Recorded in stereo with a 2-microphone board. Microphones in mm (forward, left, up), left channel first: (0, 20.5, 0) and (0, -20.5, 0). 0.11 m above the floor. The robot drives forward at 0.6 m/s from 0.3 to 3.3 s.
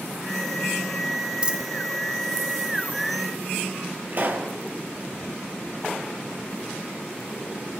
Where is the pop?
50° right (ahead or behind), 1.9 m.